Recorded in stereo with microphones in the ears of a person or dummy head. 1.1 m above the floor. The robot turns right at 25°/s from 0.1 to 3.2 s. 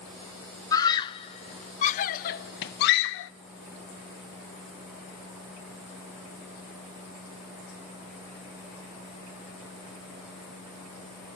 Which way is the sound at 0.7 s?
20° left (ahead or behind).